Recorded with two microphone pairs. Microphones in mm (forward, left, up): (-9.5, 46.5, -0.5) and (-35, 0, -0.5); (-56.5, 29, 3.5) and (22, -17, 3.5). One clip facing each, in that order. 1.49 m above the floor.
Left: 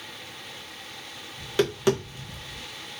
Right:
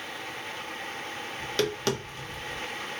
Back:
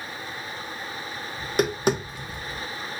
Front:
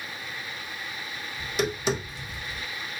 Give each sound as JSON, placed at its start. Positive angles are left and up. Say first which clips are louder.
{"t": 1.4, "sound": "tapping", "louder": "left 4 dB, back 5 dB", "azimuth_deg": 135, "distance_m": 0.9}